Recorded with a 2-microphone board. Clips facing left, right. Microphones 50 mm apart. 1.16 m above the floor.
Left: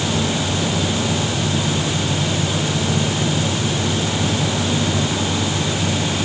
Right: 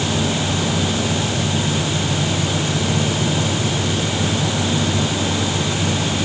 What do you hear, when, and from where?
Only background noise.